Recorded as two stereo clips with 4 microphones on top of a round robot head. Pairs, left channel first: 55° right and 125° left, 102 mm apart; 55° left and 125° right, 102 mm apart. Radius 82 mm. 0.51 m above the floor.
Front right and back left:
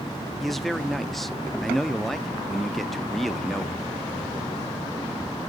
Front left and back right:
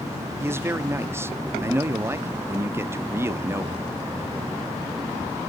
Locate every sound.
0.4 s a man speaking: 145° right, 0.8 m